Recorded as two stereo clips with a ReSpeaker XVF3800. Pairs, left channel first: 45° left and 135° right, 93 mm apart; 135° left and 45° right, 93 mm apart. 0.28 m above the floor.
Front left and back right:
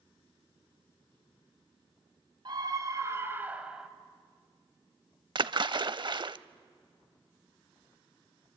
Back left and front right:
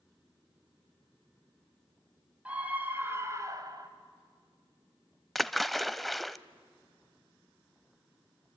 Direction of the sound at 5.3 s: 135° right.